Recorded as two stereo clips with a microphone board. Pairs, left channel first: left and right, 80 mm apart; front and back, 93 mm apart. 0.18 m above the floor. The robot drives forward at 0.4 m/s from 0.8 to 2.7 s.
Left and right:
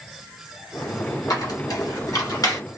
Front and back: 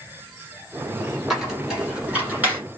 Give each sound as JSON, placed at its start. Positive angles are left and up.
{"t": 1.3, "sound": "a squeak", "azimuth_deg": 95, "distance_m": 1.6}